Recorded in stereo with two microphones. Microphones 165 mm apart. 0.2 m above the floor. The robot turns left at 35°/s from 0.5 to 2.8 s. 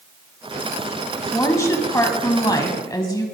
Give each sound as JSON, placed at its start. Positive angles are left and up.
{"t": 1.3, "sound": "a woman speaking", "side_deg": 15, "distance_m": 1.1}